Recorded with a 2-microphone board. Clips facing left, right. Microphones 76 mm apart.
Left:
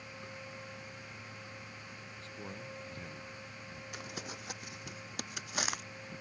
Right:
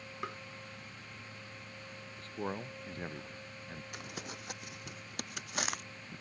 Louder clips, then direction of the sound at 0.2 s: Right 10 dB; 75° right (ahead or behind).